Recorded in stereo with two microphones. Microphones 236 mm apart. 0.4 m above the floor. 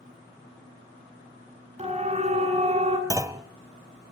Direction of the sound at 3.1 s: 15° right (ahead or behind).